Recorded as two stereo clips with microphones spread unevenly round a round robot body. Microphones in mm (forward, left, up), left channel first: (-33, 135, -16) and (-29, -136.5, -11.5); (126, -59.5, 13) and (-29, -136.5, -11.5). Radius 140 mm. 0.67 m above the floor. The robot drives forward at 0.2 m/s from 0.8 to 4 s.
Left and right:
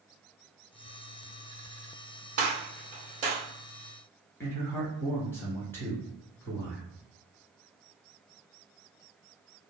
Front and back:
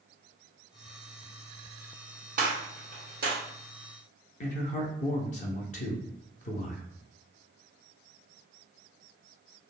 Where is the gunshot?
140° right, 1.1 m; by 3.4 s 150° right, 1.2 m.